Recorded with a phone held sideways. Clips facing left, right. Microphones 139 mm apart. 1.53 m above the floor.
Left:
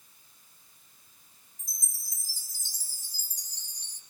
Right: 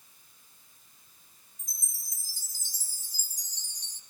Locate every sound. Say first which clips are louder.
1.6 s a chime: left 1 dB; 35° left (ahead or behind), 1.6 m